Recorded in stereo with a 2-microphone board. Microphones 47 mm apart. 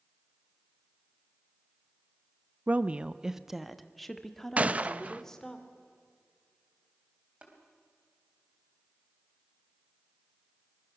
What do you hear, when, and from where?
2.7 s a woman speaking: 35° right (ahead or behind), 0.6 m; by 5.6 s 10° left (ahead or behind), 2.5 m
4.6 s a gunshot: 30° right (ahead or behind), 0.6 m
7.4 s tapping: 25° right (ahead or behind), 3.5 m